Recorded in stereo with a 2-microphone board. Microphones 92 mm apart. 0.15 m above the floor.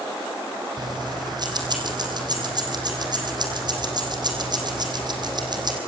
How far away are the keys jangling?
About 4 m.